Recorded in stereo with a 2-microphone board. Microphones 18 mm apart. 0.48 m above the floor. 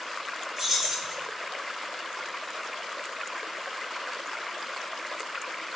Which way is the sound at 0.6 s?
15° right (ahead or behind).